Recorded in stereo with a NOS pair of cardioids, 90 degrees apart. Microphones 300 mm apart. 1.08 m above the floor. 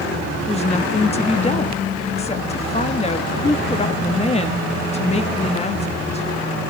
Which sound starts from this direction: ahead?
A woman speaking, at 0.5 s.